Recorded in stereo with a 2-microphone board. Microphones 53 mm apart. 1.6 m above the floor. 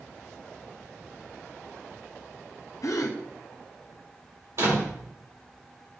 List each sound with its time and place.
2.8 s a gasp: 75° left (ahead or behind), 0.9 m
4.6 s a door slam: 60° right (ahead or behind), 4 m